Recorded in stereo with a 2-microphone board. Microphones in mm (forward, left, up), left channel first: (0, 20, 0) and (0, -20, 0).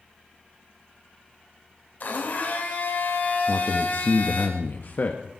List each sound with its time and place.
2.0 s a blender: 50° left (ahead or behind), 3.5 m
3.5 s a man speaking: 55° left (ahead or behind), 1.4 m